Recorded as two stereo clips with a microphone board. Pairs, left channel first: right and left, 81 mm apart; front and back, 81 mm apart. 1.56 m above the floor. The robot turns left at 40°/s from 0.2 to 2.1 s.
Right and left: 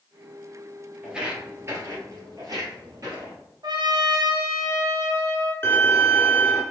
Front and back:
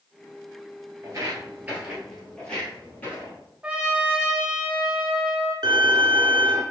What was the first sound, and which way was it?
Footsteps, 175° left.